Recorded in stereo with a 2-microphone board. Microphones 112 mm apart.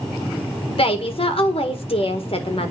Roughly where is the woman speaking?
Left.